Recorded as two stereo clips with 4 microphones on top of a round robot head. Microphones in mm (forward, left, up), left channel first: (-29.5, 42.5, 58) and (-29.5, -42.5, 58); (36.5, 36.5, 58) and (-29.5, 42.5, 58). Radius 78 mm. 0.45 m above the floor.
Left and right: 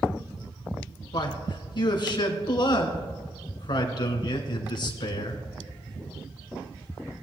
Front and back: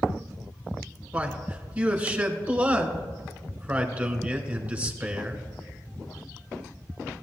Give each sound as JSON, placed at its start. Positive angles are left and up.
{"t": 1.1, "sound": "a man speaking", "azimuth_deg": 115, "distance_m": 2.0}